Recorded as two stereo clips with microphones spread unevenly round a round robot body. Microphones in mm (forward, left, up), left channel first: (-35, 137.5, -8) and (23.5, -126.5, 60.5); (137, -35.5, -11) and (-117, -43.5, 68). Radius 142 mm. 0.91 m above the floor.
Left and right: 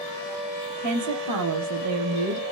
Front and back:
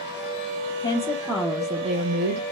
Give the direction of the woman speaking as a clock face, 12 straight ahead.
2 o'clock.